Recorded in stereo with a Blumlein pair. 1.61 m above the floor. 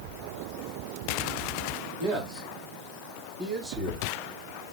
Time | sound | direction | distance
2.0 | a man speaking | 35° right | 3 m